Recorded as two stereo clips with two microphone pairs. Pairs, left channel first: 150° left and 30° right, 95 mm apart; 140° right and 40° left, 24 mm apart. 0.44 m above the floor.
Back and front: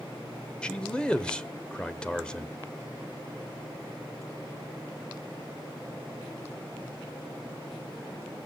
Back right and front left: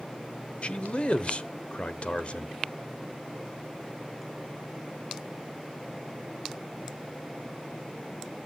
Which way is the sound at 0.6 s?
130° right.